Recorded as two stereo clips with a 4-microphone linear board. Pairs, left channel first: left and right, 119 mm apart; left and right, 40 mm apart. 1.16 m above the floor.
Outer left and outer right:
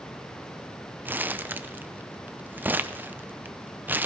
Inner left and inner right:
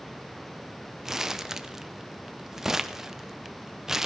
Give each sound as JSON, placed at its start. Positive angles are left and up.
{"t": 1.1, "sound": "crumpling", "side_deg": -15, "distance_m": 0.5}